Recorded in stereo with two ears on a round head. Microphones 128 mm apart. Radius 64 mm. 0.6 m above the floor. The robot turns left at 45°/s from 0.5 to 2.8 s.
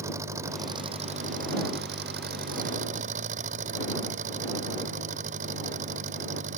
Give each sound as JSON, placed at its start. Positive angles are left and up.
{"t": 0.0, "sound": "an engine running", "azimuth_deg": -20}